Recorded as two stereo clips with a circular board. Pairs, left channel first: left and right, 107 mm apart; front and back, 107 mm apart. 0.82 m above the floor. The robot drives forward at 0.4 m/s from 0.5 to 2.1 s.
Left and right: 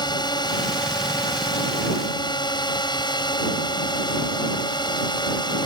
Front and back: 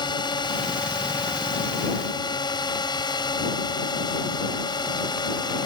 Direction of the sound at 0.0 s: 45° left.